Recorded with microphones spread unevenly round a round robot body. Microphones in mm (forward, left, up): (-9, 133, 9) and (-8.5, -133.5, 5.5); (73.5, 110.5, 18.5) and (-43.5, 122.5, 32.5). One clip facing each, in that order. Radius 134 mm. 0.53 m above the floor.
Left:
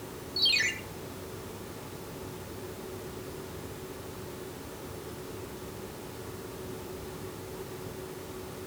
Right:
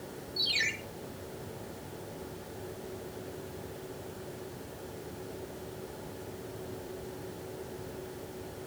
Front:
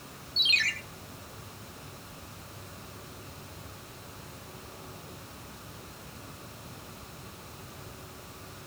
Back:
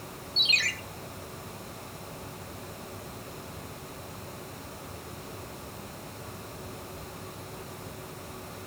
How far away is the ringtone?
About 5.5 m.